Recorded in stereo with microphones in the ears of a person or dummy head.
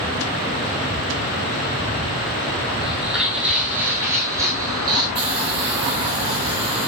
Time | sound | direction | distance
2.8 | footsteps | centre (ahead or behind) | 4 m
5.2 | a hiss | 35° right (ahead or behind) | 6 m